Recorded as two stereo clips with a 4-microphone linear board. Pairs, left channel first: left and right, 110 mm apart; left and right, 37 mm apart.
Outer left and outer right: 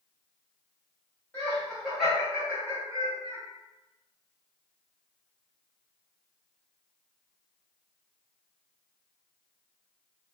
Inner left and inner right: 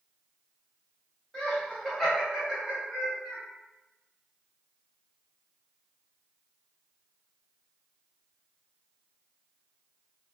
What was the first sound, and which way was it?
Laughter, 15° left (ahead or behind).